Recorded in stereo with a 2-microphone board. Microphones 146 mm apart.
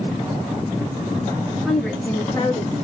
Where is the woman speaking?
Centre (ahead or behind), 2 m; by 2.7 s 35° left (ahead or behind), 2 m.